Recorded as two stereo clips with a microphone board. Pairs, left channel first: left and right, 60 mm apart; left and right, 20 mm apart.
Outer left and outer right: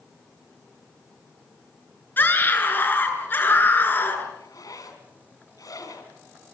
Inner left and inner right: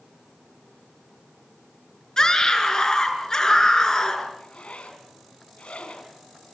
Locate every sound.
2.2 s a scream: 35° left (ahead or behind), 6.5 m
4.4 s a zipper: 75° left (ahead or behind), 4 m